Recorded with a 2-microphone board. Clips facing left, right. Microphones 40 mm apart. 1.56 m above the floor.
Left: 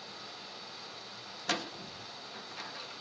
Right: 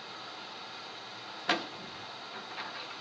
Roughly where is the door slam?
Centre.